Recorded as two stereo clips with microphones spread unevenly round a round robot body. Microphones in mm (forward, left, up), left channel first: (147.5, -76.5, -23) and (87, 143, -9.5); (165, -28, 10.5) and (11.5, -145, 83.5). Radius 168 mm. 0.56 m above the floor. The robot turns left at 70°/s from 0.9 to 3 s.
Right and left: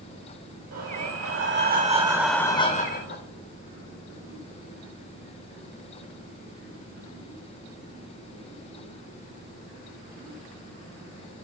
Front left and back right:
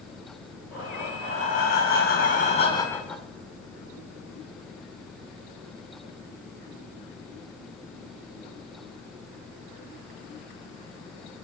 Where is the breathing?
115° left, 1.9 m; by 3.2 s 35° right, 1.9 m.